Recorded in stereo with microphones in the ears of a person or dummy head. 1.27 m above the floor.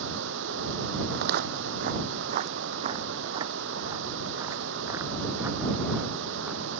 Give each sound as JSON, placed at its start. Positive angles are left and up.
{"t": 0.0, "sound": "running water", "side_deg": -75}
{"t": 1.1, "sound": "footsteps", "side_deg": -55}